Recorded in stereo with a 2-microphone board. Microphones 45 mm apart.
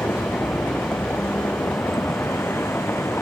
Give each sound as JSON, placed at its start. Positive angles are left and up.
{"t": 0.0, "sound": "a vehicle", "side_deg": 70}